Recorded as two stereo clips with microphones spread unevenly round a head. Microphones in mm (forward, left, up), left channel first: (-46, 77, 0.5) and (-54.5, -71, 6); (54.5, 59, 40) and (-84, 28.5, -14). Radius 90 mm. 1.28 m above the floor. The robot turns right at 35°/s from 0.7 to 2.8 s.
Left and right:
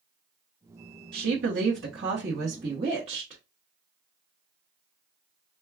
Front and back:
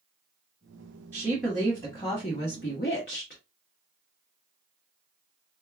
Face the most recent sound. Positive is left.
turn(degrees=-30)